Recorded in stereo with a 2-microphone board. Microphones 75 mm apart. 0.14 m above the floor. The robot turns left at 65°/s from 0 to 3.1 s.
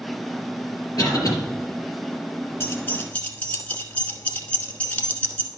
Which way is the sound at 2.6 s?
35° left (ahead or behind).